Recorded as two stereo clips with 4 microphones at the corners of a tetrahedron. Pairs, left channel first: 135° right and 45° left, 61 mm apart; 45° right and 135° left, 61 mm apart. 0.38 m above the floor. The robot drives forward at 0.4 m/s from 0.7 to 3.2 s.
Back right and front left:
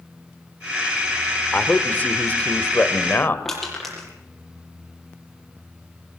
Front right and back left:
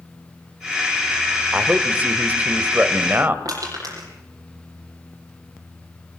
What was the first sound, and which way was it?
A man speaking, 175° right.